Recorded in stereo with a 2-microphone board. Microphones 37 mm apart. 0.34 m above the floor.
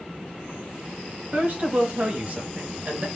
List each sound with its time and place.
1.3 s a woman speaking: 45° right (ahead or behind), 2 m; by 3.1 s 30° right (ahead or behind), 1.4 m